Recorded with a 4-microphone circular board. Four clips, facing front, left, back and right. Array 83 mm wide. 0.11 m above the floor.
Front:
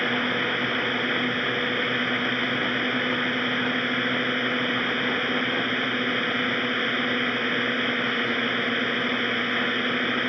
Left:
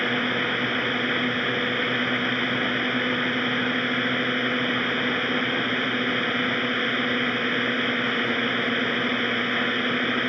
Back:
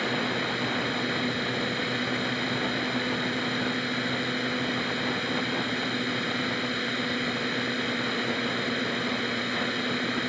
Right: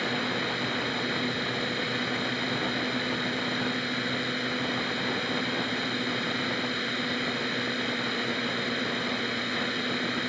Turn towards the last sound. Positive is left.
turn(degrees=50)